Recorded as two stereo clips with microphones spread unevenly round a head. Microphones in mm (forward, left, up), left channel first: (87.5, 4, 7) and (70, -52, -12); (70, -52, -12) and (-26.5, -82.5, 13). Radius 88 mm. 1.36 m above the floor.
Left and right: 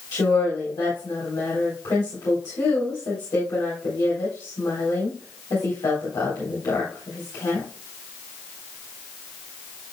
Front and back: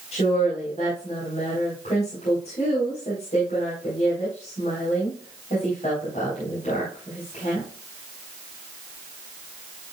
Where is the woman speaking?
75° left, 4 m.